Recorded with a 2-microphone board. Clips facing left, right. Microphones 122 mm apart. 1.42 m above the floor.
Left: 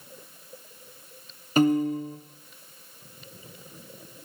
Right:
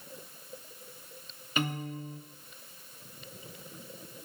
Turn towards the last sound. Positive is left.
turn(degrees=40)  # may be behind; listen again after turning